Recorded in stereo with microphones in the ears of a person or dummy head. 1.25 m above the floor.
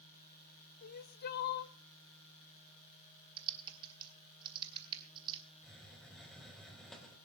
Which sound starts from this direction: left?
Crying, at 0.8 s.